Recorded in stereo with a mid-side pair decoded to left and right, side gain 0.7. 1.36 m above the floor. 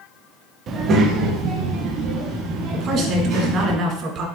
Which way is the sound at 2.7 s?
50° right.